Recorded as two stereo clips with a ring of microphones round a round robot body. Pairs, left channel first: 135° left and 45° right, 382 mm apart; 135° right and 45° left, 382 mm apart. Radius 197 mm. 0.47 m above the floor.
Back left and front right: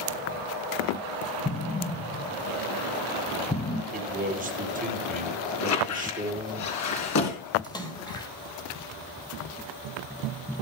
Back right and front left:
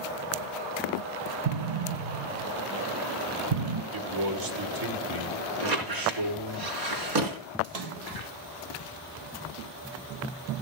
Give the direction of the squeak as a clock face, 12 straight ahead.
9 o'clock.